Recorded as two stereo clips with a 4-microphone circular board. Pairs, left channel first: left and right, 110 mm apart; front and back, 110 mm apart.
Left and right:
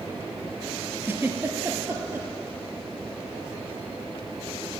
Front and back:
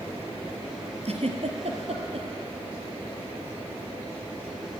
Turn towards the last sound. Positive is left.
turn(degrees=-160)